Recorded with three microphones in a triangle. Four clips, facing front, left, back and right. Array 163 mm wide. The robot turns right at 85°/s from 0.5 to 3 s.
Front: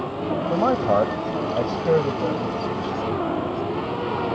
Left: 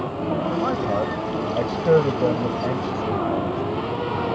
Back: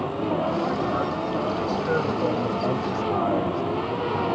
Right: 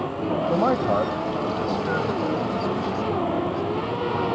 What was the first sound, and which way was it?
A man speaking, 50° right.